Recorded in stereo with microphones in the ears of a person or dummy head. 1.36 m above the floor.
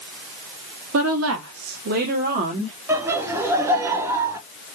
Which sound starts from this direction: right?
A woman speaking, at 0.9 s.